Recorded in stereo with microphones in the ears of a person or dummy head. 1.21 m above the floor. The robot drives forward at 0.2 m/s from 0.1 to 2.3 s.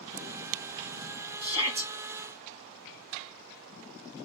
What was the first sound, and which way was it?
A shout, 25° right (ahead or behind).